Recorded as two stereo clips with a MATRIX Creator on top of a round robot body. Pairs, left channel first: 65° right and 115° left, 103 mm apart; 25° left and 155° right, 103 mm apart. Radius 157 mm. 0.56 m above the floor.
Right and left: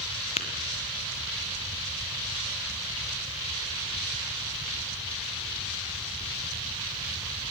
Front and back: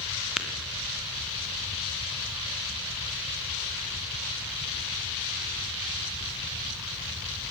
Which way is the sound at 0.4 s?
75° right.